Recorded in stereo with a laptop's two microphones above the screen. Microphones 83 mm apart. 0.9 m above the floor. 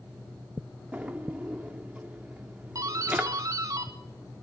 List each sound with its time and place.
0.9 s a drawer: 15° right (ahead or behind), 1.2 m
2.8 s a doorbell: 40° right (ahead or behind), 1.7 m